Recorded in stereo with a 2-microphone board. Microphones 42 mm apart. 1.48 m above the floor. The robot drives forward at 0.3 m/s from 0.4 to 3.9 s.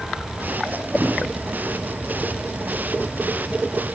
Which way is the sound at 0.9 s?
55° right (ahead or behind).